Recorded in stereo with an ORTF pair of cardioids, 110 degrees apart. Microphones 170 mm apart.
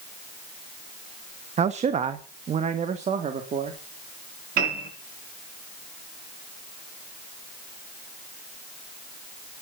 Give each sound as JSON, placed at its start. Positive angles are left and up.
{"t": 1.6, "sound": "a man speaking", "azimuth_deg": -40, "distance_m": 1.1}
{"t": 4.6, "sound": "a piano", "azimuth_deg": -60, "distance_m": 9.5}